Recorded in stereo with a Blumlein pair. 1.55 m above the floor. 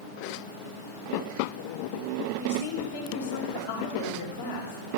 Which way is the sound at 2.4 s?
55° left.